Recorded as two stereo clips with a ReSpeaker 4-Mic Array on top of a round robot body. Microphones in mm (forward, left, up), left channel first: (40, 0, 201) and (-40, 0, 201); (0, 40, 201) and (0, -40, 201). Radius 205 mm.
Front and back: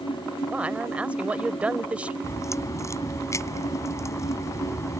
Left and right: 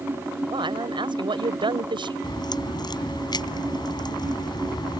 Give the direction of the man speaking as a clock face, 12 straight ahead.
4 o'clock.